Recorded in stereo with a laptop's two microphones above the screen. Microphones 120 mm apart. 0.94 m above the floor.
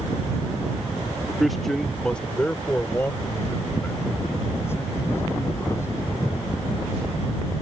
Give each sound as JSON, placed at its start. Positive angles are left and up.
{"t": 1.3, "sound": "a man speaking", "side_deg": -5}